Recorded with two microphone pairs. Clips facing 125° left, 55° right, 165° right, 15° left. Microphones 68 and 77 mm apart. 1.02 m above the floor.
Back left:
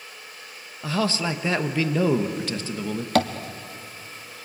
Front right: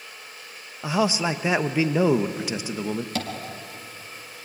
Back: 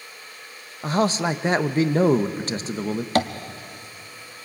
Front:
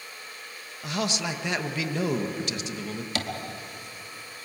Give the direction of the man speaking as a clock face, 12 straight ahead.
4 o'clock.